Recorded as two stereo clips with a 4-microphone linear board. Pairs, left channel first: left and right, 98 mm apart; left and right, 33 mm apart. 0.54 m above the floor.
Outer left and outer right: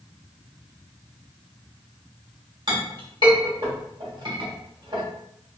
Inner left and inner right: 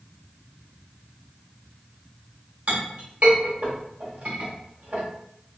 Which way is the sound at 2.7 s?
50° right (ahead or behind).